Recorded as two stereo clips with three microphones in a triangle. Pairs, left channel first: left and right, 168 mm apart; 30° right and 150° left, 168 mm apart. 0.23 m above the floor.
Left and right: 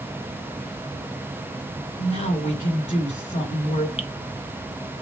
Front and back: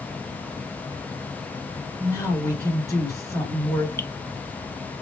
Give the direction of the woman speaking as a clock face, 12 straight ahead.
11 o'clock.